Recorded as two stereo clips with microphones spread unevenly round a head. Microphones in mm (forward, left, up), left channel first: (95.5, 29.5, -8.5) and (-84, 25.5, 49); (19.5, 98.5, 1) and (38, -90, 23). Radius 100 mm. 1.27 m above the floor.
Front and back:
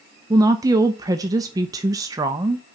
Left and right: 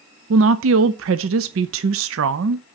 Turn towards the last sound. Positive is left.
turn(degrees=-110)